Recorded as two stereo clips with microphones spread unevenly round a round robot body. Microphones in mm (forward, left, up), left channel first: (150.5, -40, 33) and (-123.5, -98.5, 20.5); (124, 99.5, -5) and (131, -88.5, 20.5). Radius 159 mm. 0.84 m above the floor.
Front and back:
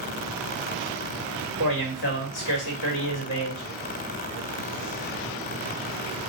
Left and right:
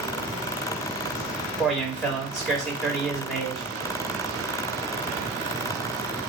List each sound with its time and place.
1.6 s a man speaking: 5° right, 2 m